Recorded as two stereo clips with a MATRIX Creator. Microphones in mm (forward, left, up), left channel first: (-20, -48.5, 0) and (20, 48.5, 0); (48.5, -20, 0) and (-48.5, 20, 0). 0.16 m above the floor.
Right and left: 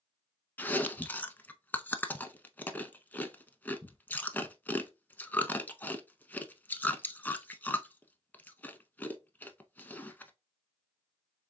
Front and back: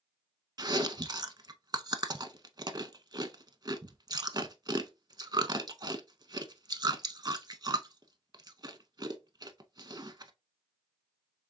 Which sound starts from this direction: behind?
Chewing, at 0.6 s.